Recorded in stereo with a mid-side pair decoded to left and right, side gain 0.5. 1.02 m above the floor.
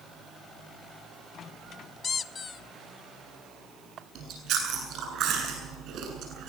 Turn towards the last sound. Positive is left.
turn(degrees=-65)